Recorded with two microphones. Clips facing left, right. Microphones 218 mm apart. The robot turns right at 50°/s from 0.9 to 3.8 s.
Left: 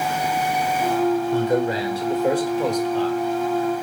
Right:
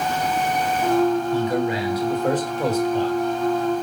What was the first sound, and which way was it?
A man speaking, 115° left.